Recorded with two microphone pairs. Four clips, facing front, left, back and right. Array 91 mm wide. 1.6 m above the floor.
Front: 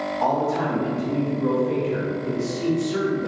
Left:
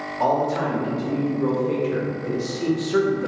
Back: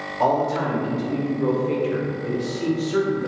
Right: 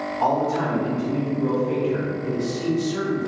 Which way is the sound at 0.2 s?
165° left.